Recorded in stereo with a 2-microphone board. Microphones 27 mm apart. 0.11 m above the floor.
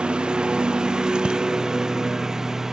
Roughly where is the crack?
No crack in this recording.